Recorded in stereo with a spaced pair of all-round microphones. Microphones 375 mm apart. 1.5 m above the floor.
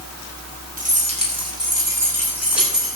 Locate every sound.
0.8 s keys jangling: 20° right (ahead or behind), 4 m; by 3.0 s centre (ahead or behind), 6.5 m